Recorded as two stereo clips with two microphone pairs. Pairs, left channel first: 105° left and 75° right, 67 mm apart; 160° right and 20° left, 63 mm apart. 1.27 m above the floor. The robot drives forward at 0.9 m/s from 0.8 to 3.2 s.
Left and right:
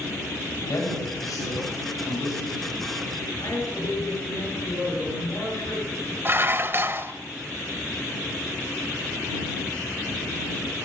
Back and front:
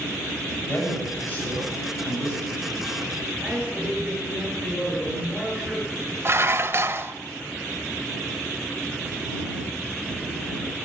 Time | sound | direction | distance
0.7 | a woman speaking | 135° left | 5.5 m
3.4 | a man speaking | 95° left | 8 m
6.2 | dishes clattering | 25° right | 0.6 m